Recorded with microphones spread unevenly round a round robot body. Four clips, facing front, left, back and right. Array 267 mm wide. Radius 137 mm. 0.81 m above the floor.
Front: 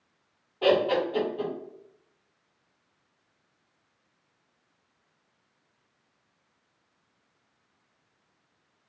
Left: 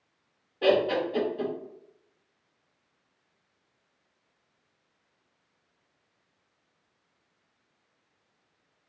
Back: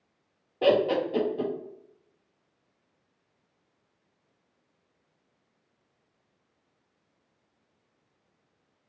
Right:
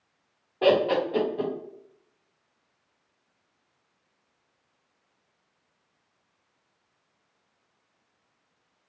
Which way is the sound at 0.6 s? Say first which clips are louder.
Right 2 dB, even; 145° right.